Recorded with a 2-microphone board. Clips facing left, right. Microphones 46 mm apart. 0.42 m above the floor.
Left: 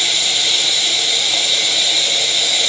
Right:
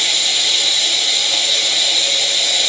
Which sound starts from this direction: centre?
Running water, at 0.0 s.